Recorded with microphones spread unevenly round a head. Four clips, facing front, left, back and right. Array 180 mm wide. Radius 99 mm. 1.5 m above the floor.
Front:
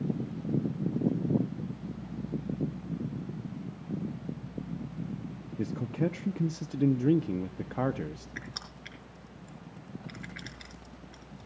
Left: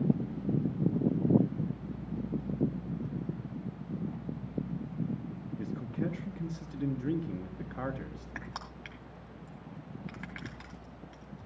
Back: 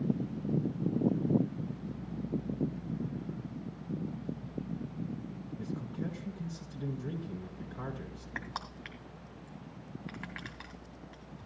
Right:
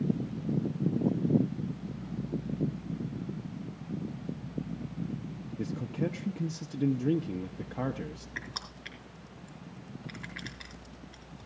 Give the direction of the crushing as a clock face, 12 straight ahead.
7 o'clock.